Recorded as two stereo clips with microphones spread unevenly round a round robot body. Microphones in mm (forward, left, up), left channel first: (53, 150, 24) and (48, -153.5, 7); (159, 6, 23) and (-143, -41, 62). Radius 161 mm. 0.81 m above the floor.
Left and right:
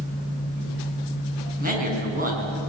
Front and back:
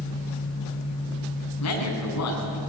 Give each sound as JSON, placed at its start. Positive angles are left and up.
{"t": 1.6, "sound": "a man speaking", "azimuth_deg": -25, "distance_m": 7.0}